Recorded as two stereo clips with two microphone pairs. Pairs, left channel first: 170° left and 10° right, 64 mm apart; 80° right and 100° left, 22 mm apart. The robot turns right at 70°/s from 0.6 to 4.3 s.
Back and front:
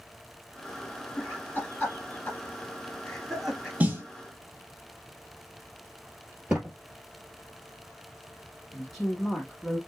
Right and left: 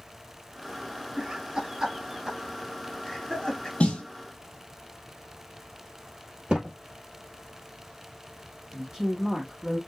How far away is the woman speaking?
About 1.2 m.